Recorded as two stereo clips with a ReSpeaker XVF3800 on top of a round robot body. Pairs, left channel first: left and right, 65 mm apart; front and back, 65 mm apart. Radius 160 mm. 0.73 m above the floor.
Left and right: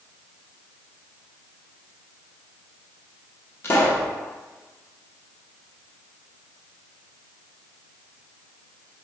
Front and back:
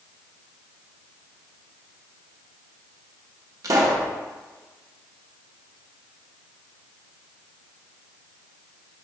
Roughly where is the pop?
Behind left.